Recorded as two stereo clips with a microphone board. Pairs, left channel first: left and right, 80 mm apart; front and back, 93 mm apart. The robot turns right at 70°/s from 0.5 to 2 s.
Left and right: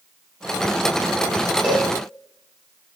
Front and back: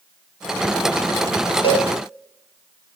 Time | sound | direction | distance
1.6 | a cowbell | 15° right | 6 m